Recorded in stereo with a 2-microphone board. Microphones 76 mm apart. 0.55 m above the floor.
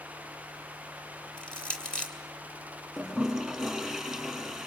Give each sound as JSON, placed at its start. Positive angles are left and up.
{"t": 1.4, "sound": "crushing", "side_deg": 10, "distance_m": 3.5}
{"t": 3.0, "sound": "a toilet flushing", "side_deg": 0, "distance_m": 3.5}